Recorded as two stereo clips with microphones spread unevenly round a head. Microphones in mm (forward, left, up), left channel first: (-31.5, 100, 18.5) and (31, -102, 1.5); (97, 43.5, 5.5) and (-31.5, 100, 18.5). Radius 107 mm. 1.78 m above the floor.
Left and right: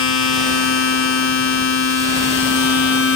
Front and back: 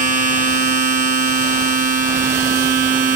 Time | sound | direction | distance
0.0 | a machine running | 135° left | 1.4 m